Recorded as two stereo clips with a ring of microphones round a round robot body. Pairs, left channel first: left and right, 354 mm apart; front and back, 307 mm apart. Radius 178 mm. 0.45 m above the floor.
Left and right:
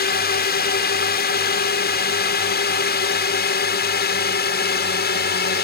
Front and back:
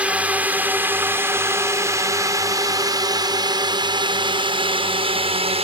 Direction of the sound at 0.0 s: 100° left.